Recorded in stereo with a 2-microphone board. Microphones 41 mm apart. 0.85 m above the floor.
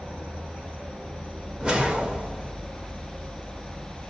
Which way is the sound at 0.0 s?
75° right (ahead or behind).